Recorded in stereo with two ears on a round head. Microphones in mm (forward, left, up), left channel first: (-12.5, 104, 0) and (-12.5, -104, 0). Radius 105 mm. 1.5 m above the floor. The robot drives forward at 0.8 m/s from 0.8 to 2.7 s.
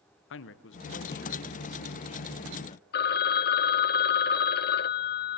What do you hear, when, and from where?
0.3 s a man speaking: 60° left (ahead or behind), 1.1 m; by 2.8 s 25° left (ahead or behind), 2.5 m
2.9 s a phone ringing: 45° left (ahead or behind), 0.6 m